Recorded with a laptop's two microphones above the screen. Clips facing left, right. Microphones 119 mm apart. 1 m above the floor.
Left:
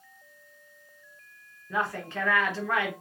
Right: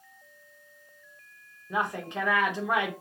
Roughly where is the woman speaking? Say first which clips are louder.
Even; centre.